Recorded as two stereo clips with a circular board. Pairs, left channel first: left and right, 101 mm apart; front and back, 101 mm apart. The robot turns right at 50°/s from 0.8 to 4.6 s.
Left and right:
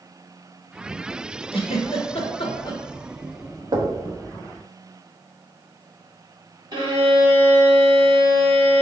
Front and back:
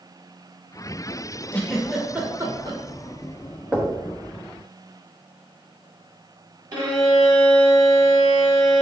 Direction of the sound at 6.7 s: 130° right.